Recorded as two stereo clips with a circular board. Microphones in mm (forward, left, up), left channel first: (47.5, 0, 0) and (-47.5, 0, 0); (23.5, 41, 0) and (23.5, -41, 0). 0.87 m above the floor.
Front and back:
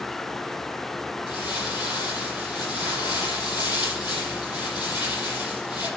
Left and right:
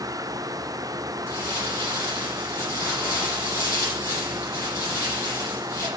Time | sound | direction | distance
1.3 | crumpling | 40° left | 9.5 m